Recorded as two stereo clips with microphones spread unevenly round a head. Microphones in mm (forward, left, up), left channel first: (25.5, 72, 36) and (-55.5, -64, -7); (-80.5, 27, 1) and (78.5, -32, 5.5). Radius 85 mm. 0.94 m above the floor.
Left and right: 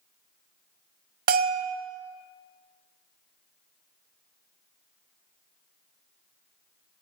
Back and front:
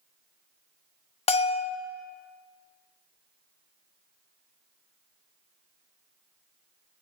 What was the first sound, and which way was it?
A bell, 155° right.